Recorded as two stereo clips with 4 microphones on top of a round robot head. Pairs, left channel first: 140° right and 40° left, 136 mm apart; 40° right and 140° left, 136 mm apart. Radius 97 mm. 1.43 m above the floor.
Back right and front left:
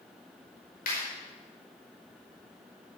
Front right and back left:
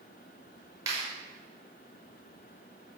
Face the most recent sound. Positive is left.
turn(degrees=-155)